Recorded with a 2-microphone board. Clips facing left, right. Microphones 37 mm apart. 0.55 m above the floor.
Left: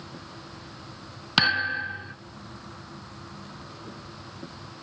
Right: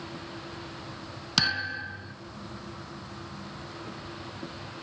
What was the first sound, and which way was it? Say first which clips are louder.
A thud: left 5 dB; 30° left (ahead or behind).